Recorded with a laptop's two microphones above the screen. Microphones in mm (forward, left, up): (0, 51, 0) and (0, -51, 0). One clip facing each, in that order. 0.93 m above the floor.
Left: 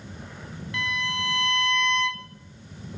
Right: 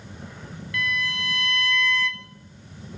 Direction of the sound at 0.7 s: 25° left (ahead or behind).